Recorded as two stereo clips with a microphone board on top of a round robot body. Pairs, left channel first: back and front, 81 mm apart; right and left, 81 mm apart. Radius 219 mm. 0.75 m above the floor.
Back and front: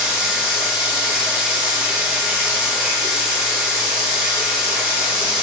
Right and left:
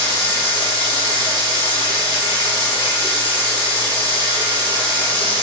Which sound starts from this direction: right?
Running water, at 0.0 s.